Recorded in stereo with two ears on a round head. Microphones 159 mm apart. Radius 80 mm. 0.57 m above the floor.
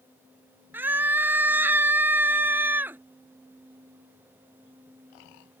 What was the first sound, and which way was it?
A scream, 10° right (ahead or behind).